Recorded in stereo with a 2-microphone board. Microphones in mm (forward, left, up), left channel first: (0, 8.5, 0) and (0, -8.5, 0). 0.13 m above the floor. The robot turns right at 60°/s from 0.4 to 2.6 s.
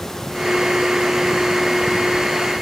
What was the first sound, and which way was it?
Only background noise.